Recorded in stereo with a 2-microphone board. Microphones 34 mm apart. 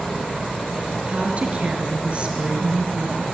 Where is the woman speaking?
35° right (ahead or behind), 5 m.